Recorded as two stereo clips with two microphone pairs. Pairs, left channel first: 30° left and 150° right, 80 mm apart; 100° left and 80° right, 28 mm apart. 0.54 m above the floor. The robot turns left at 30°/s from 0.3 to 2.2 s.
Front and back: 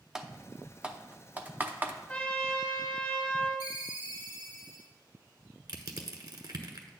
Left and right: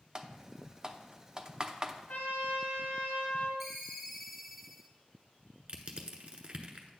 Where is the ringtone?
170° right, 1.1 m.